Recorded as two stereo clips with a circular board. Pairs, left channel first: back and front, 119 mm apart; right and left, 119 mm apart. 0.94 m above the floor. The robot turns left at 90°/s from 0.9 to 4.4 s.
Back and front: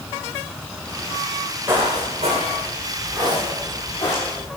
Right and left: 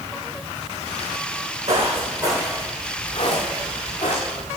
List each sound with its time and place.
1.7 s footsteps: 75° left, 3.5 m; by 4.5 s 145° right, 5 m